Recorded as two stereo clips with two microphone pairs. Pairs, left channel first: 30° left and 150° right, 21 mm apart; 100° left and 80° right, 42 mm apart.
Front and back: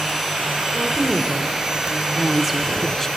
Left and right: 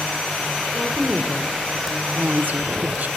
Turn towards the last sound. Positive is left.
turn(degrees=-50)